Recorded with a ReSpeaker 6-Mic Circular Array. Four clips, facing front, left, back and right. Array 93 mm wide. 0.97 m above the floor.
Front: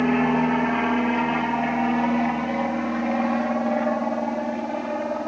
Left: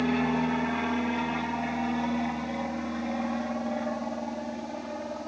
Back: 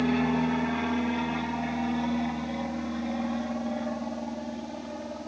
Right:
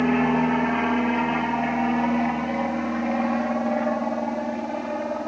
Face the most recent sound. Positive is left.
turn(degrees=-30)